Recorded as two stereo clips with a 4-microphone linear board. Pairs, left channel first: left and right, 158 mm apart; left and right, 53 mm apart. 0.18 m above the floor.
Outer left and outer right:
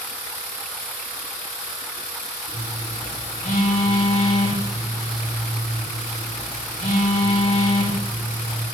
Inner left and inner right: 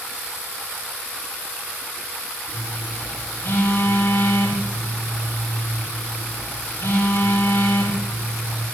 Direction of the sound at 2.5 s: 60° left (ahead or behind).